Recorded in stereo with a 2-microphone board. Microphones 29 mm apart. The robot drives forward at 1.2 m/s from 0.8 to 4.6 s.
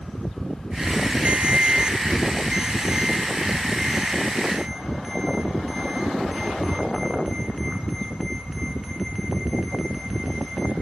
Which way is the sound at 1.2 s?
55° right (ahead or behind).